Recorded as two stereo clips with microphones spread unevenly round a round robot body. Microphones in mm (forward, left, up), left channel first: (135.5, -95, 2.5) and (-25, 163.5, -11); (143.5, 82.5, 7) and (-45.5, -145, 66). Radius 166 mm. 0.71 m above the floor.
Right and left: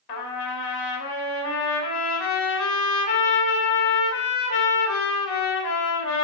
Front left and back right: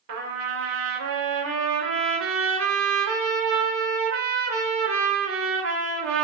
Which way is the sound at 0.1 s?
80° right.